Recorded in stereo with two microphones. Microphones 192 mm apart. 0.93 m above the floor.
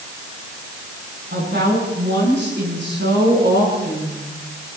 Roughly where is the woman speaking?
Right.